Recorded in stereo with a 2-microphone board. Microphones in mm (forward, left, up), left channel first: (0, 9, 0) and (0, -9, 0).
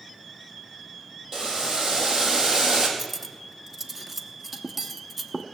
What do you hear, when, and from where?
1.3 s boiling: 35° right (ahead or behind), 2.0 m
3.0 s cutlery clinking: 10° right (ahead or behind), 0.7 m